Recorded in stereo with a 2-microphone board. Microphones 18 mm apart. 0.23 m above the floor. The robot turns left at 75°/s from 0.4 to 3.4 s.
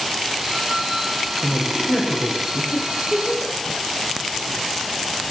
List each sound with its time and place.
1.4 s a man speaking: 155° right, 6 m; by 2.6 s 115° left, 6 m
2.7 s a giggle: 65° left (ahead or behind), 6.5 m